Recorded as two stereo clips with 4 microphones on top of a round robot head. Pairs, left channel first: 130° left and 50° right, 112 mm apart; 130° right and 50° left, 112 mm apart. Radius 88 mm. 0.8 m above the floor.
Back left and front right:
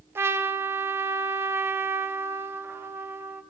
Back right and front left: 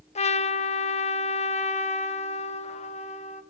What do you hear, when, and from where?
0.1 s a trumpet: 120° right, 1.2 m